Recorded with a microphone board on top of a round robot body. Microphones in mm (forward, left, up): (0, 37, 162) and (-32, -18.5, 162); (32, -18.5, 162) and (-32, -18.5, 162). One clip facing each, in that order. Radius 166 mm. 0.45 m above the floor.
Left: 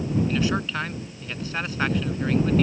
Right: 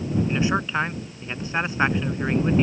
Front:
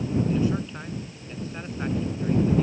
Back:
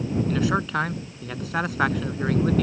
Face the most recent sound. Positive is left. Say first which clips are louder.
# right 2 dB, back 2 dB
turn(degrees=175)